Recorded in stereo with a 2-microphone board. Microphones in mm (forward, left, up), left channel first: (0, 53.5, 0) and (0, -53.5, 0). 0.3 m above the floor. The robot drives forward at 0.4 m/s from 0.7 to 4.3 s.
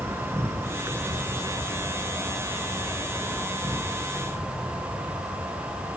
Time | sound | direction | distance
0.0 | an insect | 25° right (ahead or behind) | 1.2 m